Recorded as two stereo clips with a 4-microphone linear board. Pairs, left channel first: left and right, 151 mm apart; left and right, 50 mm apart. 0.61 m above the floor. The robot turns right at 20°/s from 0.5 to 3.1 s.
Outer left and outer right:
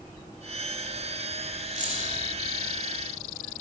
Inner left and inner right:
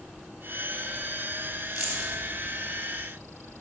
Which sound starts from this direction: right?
Keys jangling, at 1.8 s.